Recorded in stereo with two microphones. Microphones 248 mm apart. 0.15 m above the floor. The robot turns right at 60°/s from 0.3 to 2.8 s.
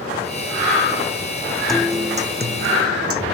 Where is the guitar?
Straight behind; by 3.2 s 115° right.